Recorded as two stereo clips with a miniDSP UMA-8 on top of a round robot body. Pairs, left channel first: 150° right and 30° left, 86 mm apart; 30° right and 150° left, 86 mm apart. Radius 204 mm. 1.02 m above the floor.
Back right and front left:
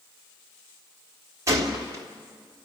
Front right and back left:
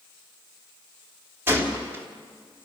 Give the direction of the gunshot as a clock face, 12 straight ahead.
9 o'clock.